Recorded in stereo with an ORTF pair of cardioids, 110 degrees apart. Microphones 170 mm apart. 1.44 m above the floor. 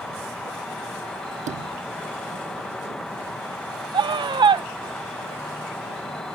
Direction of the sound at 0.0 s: 5° left.